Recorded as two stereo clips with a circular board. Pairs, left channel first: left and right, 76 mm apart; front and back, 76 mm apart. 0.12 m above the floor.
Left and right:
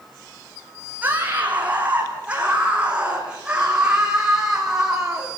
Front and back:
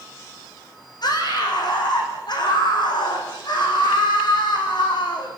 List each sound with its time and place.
1.0 s a scream: 20° right, 8 m; by 5.3 s 5° right, 9 m